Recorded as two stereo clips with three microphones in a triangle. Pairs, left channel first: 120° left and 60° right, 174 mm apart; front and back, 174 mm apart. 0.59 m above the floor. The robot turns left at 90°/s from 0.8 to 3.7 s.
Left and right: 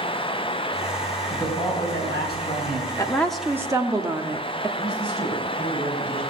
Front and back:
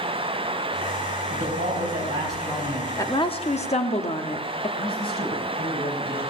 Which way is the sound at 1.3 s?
160° right.